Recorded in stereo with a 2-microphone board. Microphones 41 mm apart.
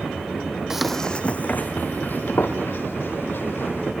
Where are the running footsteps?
15° right (ahead or behind), 0.7 m; by 3.9 s 60° left (ahead or behind), 4 m.